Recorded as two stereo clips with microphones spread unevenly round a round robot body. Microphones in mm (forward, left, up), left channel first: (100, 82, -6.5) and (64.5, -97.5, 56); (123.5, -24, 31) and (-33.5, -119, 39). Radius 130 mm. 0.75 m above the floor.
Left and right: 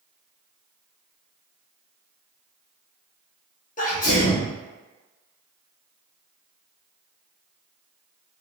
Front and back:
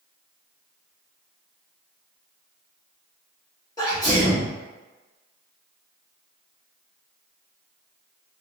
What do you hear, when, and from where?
3.8 s a sneeze: 100° left, 1.1 m